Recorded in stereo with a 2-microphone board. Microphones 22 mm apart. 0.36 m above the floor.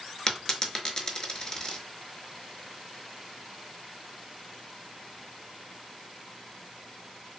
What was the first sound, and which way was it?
A dropped coin, 25° left (ahead or behind).